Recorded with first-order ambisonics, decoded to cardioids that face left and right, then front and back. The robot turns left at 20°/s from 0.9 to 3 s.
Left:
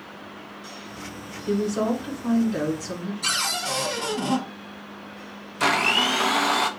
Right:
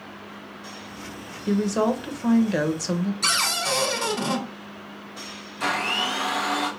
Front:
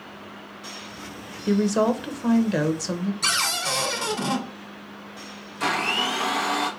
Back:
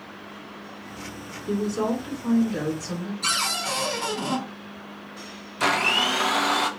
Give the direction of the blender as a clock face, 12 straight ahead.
8 o'clock.